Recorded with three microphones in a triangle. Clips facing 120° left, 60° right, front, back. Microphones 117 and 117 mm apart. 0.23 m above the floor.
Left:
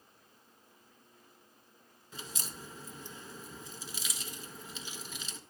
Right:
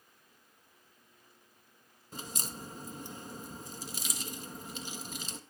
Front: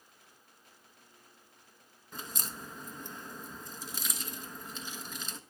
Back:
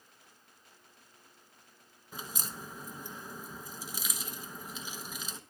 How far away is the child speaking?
No child speaking in this recording.